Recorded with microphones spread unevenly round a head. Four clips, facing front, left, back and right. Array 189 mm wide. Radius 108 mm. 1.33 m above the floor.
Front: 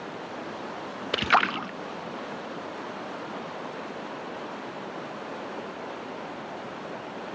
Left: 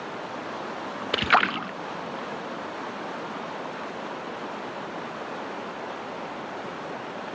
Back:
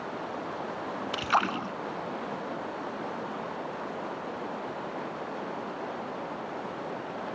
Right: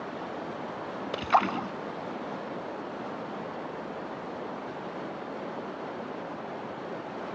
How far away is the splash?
About 0.5 m.